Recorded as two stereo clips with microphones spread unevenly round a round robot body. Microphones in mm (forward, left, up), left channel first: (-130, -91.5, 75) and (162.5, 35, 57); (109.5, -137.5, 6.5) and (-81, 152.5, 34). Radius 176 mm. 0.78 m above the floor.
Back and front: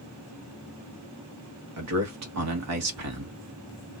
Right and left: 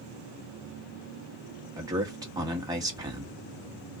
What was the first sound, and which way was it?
A man speaking, 40° left.